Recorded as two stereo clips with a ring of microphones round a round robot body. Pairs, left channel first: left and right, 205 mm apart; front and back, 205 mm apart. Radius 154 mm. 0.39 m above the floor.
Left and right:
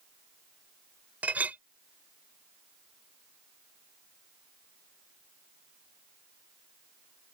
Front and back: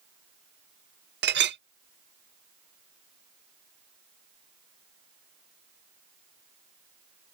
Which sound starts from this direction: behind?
A clink, at 1.2 s.